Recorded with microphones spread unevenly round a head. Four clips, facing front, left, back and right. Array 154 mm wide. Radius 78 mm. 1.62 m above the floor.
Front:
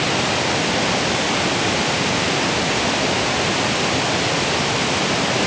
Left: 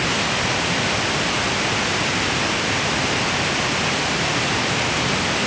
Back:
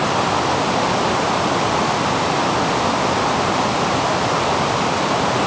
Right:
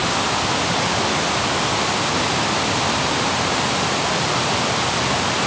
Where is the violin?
No violin in this recording.